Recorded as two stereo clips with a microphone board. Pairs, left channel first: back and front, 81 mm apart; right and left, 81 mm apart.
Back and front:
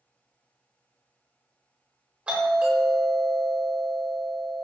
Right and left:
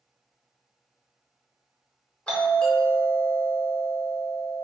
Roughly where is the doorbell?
Ahead right.